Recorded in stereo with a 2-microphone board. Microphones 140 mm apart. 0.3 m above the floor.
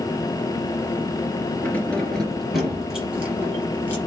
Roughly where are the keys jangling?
Centre.